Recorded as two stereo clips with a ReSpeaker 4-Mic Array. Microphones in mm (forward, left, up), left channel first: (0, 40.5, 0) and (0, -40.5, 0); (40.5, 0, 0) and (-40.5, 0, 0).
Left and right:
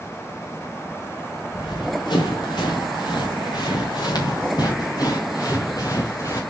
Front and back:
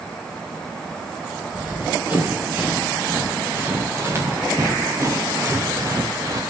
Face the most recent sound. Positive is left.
turn(degrees=135)